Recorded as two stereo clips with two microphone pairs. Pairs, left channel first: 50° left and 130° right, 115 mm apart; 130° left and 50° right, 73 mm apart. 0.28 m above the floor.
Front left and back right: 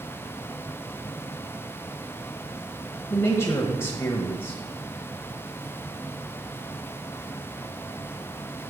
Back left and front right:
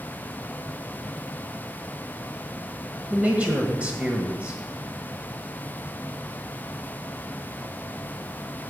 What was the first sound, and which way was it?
A man speaking, 5° left.